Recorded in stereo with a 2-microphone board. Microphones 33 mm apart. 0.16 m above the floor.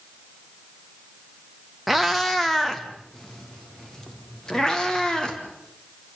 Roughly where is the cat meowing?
Centre.